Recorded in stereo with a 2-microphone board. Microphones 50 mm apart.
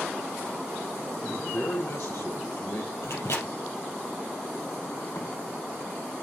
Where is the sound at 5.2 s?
65° left (ahead or behind), 5.5 m.